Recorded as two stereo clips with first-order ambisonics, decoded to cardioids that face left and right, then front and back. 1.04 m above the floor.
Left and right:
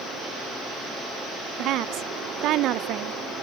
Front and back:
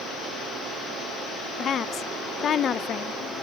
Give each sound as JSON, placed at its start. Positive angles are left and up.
{"t": 1.6, "sound": "a woman speaking", "azimuth_deg": -60, "distance_m": 0.6}